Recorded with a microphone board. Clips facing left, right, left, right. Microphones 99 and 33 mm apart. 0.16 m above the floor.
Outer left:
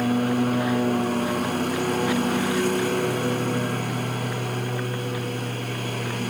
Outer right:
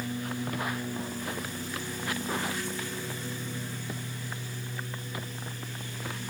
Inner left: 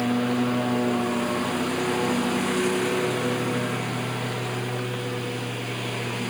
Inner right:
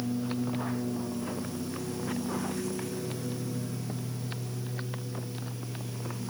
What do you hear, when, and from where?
0.0 s a lawn mower: 85° left